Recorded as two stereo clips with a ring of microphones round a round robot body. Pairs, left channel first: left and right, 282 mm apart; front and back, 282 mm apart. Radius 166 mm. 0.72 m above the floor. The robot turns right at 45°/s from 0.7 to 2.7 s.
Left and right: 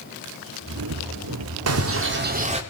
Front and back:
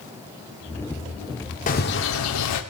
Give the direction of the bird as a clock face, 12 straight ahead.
2 o'clock.